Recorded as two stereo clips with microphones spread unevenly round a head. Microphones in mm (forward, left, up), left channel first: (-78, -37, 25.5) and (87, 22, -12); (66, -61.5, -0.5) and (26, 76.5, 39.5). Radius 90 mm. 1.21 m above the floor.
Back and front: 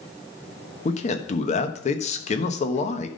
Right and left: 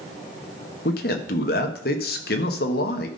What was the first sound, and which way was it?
A man speaking, 110° right.